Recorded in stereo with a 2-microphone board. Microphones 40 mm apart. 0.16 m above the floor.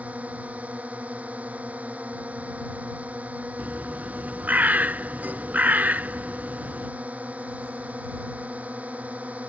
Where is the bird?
45° right (ahead or behind).